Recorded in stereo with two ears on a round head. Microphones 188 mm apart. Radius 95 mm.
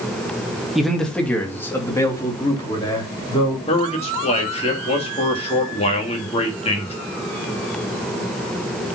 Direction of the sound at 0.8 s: Centre (ahead or behind).